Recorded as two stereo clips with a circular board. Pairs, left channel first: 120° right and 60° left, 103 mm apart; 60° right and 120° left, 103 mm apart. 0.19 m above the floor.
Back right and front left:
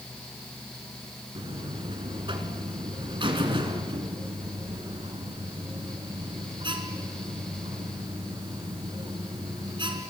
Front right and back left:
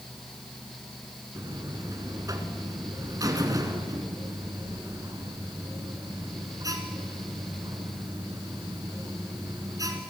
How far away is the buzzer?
About 2.5 m.